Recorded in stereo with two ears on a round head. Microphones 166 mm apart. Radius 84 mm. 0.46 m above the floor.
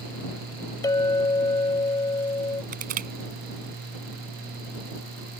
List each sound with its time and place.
0.8 s a clink: 20° left (ahead or behind)
2.7 s crushing: 45° right (ahead or behind)